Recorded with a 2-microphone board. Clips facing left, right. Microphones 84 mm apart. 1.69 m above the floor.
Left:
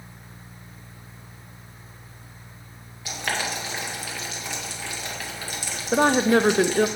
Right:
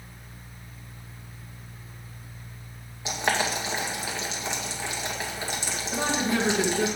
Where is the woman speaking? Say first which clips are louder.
Left 9 dB; 55° left (ahead or behind), 0.6 m.